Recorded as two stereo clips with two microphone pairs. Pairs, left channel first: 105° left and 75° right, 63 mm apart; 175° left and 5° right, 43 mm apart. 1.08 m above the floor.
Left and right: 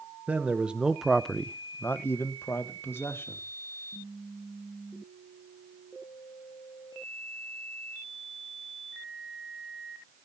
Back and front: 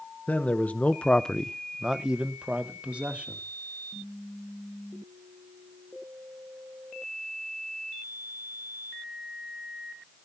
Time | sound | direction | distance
0.3 | a man speaking | 140° right | 1.1 m